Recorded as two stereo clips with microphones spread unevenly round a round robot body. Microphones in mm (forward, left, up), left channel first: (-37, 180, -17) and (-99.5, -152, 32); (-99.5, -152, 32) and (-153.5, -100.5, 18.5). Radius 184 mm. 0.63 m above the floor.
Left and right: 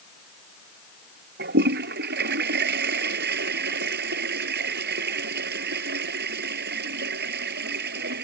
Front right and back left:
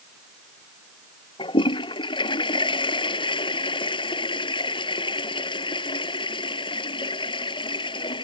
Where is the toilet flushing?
35° right.